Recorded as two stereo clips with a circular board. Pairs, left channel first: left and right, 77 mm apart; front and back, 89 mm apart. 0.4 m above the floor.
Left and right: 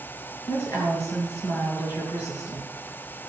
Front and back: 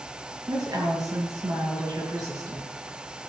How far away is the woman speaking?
About 6 m.